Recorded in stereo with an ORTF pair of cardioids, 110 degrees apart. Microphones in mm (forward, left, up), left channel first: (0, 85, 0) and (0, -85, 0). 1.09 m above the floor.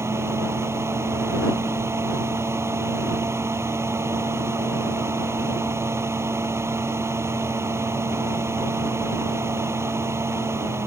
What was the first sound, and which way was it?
A fan, 15° right.